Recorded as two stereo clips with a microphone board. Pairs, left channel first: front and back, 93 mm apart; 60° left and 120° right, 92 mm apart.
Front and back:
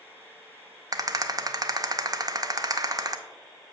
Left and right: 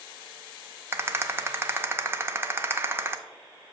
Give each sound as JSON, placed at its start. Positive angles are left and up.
{"t": 0.9, "sound": "a rattle", "azimuth_deg": -170, "distance_m": 0.5}